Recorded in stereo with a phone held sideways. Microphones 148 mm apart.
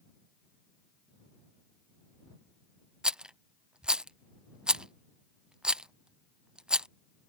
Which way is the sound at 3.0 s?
5° right (ahead or behind).